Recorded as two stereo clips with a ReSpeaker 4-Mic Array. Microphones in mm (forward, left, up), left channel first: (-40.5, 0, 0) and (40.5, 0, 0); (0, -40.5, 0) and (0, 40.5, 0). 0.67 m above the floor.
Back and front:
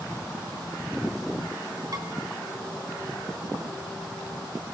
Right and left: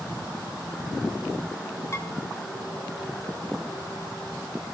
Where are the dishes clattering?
40° right, 4 m.